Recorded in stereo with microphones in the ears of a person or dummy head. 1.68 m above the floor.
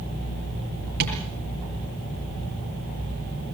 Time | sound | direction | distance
1.0 | tapping | 55° right (ahead or behind) | 6.5 m